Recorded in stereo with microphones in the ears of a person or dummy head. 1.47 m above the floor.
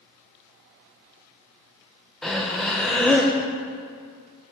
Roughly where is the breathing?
Centre.